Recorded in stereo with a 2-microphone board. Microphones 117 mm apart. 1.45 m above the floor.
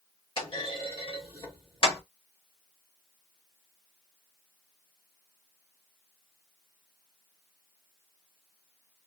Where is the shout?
I don't hear a shout.